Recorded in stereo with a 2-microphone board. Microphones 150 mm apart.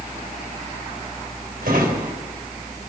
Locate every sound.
1.6 s a drawer: 80° right, 3 m